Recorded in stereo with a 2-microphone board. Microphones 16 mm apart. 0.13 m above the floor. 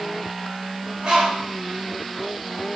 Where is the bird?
85° right, 7.5 m.